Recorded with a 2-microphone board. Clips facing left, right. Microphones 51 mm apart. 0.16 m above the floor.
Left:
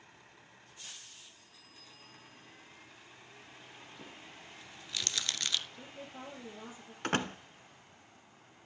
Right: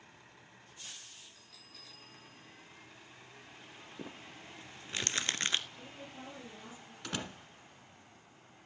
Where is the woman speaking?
25° left (ahead or behind), 5 m.